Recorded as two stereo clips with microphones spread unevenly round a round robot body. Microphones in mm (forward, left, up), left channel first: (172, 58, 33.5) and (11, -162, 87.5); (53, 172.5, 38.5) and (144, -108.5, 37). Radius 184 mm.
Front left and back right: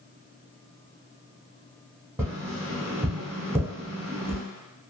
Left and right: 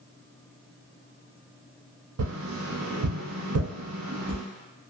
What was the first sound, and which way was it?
Tapping, 40° right.